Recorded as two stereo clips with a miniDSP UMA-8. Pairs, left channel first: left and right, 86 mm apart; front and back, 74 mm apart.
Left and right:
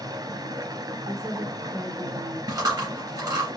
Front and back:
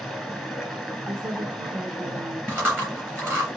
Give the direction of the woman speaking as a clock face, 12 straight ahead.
5 o'clock.